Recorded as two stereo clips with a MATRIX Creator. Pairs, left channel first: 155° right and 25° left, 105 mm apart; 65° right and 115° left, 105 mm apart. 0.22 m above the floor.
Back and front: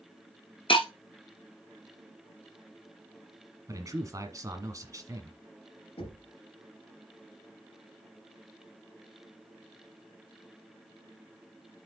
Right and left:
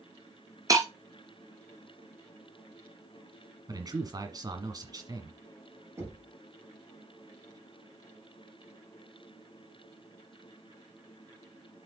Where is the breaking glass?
170° left, 1.3 m.